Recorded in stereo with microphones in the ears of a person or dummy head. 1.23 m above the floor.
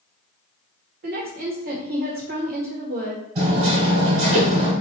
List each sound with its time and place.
1.0 s a woman speaking: 50° right (ahead or behind), 1.4 m
3.4 s hammering: 40° right (ahead or behind), 1.7 m